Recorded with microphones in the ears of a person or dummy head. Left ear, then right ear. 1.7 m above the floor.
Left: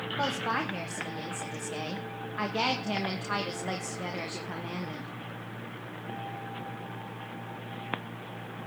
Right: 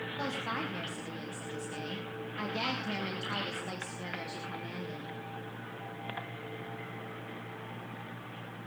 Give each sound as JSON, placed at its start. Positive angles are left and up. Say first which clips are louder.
{"t": 0.2, "sound": "a woman speaking", "louder": "left 6 dB", "side_deg": 20, "distance_m": 1.5}